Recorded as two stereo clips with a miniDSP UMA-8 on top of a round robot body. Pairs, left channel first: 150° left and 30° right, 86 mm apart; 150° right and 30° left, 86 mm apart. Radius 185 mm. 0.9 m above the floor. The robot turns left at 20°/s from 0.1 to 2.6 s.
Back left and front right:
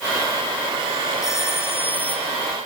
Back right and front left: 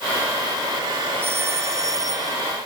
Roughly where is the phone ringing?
Left.